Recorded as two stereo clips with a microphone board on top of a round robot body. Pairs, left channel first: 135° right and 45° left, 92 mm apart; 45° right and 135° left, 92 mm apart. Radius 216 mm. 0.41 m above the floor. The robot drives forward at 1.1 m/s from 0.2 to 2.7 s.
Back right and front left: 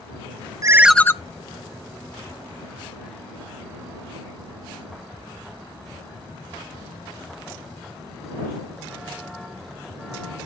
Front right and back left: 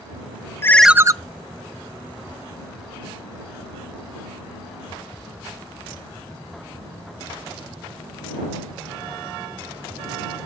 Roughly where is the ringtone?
Ahead.